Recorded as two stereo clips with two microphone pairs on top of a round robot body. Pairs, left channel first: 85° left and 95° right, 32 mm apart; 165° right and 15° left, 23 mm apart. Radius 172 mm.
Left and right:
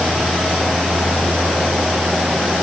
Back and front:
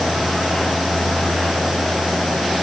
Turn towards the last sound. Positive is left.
No sound to turn to.